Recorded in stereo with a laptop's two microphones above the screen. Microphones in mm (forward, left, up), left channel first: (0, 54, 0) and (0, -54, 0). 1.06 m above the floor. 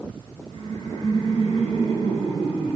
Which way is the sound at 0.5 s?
50° left (ahead or behind).